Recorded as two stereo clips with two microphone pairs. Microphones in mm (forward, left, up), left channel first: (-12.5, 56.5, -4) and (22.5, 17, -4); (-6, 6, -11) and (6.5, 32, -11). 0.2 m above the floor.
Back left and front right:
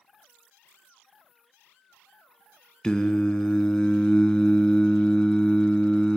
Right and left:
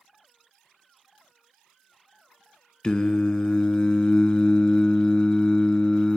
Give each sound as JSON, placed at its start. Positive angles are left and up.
{"t": 2.8, "sound": "singing", "azimuth_deg": -165, "distance_m": 0.6}